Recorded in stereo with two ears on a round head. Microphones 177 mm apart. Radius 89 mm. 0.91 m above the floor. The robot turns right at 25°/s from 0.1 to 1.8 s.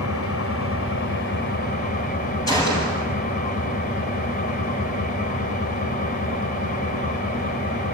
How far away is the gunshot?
About 8 m.